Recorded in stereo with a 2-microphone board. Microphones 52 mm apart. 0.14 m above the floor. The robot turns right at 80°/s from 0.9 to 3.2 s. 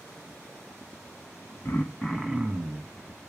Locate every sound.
1.6 s throat clearing: 130° left, 1.3 m; by 2.9 s 130° right, 1.3 m